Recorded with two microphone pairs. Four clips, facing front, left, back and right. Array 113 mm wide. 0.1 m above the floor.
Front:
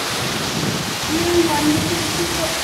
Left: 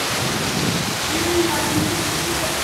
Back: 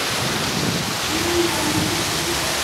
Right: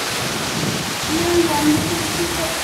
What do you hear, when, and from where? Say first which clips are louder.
1.0 s a child speaking: right 4 dB, front 5 dB; 45° right, 1.6 m; by 2.5 s 5° right, 2 m